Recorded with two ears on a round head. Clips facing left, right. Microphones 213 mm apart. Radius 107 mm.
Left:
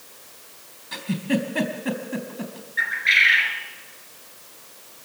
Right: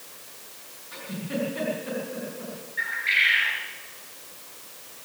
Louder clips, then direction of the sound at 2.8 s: Left 4 dB; 70° left (ahead or behind).